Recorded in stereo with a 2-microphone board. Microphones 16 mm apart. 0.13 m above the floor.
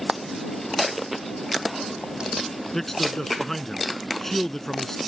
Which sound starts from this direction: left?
A man speaking, at 2.7 s.